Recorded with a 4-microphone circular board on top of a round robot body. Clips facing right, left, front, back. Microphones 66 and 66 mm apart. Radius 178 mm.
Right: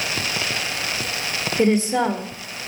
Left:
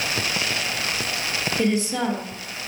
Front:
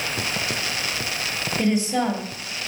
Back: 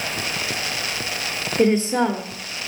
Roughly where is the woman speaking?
Behind.